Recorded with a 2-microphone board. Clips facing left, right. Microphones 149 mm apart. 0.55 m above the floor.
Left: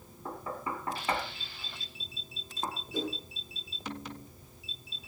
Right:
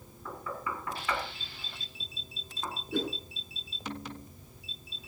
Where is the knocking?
35° left (ahead or behind), 3.5 m.